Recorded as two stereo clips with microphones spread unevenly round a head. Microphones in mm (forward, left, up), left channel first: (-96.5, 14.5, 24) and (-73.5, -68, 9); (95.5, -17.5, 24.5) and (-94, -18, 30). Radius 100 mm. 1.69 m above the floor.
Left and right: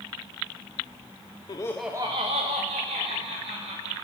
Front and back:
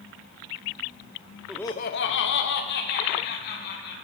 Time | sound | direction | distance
1.5 | laughter | 95° left | 0.6 m